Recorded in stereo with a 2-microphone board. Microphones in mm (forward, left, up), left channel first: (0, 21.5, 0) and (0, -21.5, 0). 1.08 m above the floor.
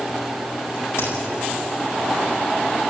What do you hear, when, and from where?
1.0 s a crack: 75° left (ahead or behind), 9 m